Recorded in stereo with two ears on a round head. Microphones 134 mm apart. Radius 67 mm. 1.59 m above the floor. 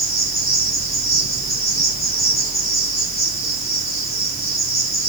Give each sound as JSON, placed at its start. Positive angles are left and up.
{"t": 0.0, "sound": "an insect", "side_deg": 25, "distance_m": 5.0}